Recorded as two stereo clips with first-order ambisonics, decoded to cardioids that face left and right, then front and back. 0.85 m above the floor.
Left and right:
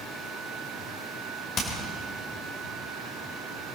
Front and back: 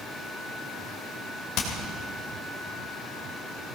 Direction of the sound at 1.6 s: 35° left.